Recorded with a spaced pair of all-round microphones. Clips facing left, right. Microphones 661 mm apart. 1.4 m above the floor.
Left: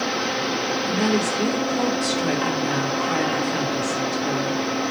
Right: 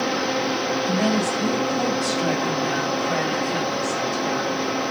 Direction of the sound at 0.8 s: 85° left.